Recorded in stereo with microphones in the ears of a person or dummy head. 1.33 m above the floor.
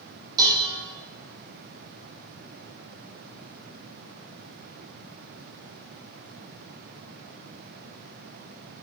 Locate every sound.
0.4 s dishes clattering: 20° right (ahead or behind), 1.5 m